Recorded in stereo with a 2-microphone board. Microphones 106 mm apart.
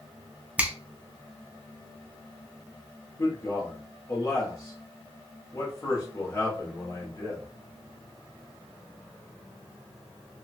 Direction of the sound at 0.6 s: 15° right (ahead or behind).